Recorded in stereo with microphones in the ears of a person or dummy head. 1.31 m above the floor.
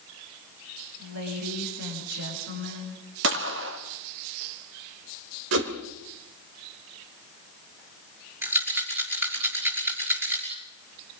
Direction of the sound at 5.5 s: 75° right (ahead or behind).